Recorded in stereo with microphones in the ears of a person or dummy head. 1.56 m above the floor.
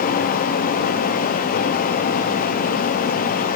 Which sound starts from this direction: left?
A fan, at 0.0 s.